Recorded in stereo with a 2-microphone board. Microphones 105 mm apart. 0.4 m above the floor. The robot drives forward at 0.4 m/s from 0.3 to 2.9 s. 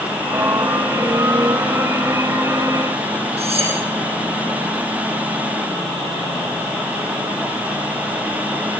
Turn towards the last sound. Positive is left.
turn(degrees=-70)  # may be behind; listen again after turning